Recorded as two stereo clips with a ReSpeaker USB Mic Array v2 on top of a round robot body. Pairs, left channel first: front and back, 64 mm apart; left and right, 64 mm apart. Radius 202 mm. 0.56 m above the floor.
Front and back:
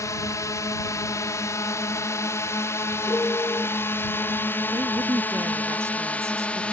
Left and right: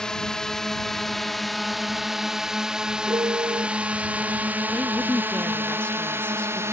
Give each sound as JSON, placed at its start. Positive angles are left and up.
{"t": 0.0, "sound": "a drone", "azimuth_deg": 10}
{"t": 3.1, "sound": "a piano", "azimuth_deg": -60}
{"t": 4.7, "sound": "a woman speaking", "azimuth_deg": 155}